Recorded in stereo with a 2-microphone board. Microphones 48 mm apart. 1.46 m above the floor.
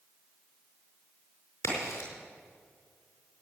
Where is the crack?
85° left, 5 m.